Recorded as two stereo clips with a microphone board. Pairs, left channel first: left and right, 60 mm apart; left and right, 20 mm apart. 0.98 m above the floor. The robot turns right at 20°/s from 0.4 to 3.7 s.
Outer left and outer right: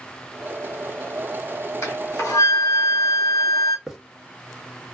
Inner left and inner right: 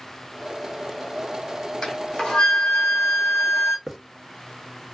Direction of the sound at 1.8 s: 60° left.